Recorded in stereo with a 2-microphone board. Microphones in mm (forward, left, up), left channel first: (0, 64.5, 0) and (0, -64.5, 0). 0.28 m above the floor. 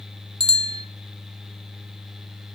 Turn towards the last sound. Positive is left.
turn(degrees=-40)  # may be behind; listen again after turning